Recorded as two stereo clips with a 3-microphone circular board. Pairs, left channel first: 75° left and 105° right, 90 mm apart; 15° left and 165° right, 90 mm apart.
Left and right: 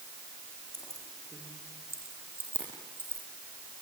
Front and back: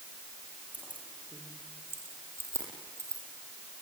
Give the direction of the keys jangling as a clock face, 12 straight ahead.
8 o'clock.